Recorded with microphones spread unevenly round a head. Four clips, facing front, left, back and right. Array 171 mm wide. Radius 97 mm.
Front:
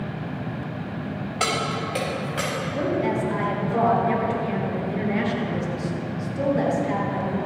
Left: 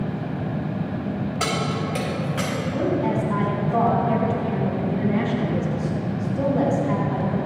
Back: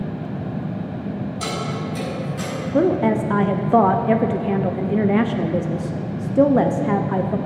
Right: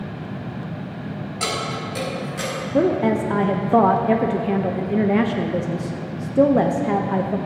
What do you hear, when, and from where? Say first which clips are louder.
1.4 s keys jangling: even, front 4 dB; 15° left, 4 m; by 2.5 s 25° left, 5.5 m
2.7 s a woman speaking: right 5 dB, back 7 dB; 135° right, 0.8 m